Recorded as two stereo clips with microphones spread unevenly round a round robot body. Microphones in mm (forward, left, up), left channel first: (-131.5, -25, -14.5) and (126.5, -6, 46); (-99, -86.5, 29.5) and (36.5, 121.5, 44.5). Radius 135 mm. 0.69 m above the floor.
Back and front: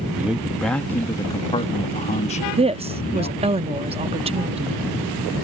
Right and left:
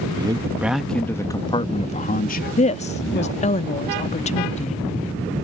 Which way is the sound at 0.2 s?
110° left.